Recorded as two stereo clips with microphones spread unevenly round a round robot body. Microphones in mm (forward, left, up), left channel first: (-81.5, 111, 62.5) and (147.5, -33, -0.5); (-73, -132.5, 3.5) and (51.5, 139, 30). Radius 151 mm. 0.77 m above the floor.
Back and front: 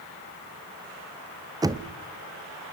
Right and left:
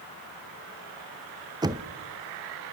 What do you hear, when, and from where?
1.6 s knocking: 10° right, 0.7 m